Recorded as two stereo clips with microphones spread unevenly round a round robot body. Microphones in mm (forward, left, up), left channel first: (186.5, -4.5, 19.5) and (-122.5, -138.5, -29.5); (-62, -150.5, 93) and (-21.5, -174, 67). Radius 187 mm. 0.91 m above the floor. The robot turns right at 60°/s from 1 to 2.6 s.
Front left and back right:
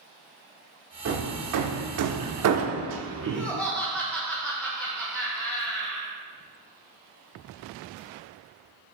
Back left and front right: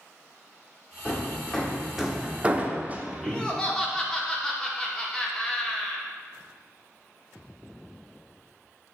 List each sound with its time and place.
1.1 s hammering: 150° left, 0.6 m; by 3.5 s 115° right, 0.6 m
3.2 s laughter: 75° right, 0.9 m